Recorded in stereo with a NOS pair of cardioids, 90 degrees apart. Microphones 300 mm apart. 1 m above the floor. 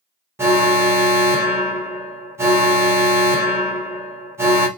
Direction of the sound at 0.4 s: 10° right.